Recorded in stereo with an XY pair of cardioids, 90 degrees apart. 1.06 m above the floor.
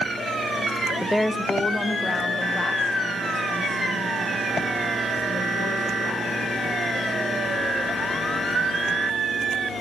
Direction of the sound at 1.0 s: 5° left.